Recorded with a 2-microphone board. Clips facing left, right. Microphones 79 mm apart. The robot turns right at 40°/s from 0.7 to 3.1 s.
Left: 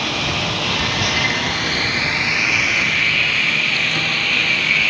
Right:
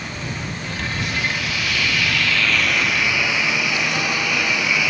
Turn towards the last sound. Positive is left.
turn(degrees=-170)